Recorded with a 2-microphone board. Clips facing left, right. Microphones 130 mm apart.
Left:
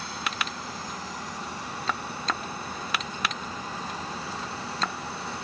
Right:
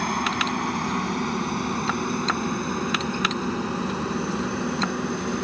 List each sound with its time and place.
0.0 s a helicopter: 65° right (ahead or behind); by 5.4 s 60° right (ahead or behind)